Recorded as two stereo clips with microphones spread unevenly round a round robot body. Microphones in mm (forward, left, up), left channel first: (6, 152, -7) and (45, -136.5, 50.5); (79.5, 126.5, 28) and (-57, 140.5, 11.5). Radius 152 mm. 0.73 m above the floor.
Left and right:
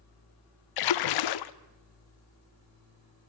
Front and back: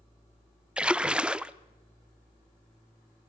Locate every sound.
0.8 s a splash: 90° left, 0.7 m